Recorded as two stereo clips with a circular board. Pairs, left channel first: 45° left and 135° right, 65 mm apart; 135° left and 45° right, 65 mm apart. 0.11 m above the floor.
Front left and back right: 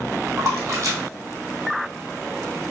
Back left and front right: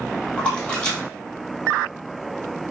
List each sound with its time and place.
0.4 s a splash: 155° right, 1.4 m